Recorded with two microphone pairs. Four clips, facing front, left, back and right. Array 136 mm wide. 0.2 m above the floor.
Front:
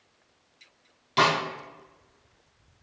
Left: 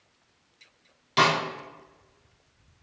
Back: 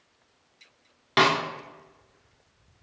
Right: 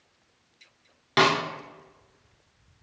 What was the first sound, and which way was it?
A snare drum, 150° right.